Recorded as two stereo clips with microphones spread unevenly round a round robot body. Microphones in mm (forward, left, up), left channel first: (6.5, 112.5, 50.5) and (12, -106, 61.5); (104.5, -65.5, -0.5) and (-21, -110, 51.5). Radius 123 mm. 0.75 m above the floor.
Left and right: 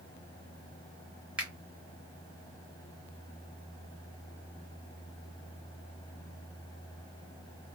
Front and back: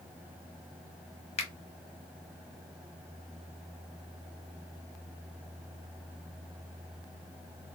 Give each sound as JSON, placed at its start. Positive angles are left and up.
{"t": 1.4, "sound": "a finger snap", "azimuth_deg": -5, "distance_m": 1.3}